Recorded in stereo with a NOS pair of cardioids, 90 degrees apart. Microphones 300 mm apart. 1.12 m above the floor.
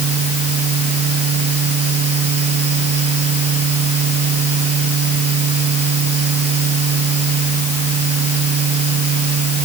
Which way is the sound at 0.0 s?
55° right.